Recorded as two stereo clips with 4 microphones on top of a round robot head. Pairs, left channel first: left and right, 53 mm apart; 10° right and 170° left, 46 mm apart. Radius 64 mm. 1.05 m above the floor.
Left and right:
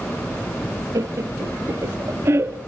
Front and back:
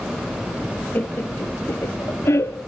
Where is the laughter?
65° right, 1.7 m; by 2.6 s 40° right, 2.5 m.